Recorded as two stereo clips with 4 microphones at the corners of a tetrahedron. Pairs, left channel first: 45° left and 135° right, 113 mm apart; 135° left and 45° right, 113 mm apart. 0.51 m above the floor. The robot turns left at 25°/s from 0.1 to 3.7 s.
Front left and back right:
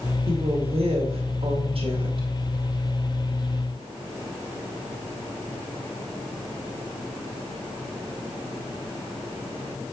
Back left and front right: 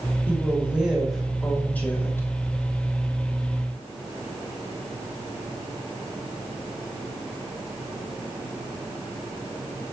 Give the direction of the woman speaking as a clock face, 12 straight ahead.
4 o'clock.